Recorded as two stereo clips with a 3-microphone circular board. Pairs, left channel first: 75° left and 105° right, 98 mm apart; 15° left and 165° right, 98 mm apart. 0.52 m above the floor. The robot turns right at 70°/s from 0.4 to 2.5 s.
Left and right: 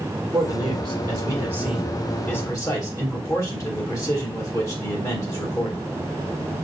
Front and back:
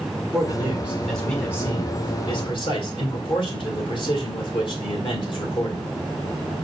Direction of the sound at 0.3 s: 120° right.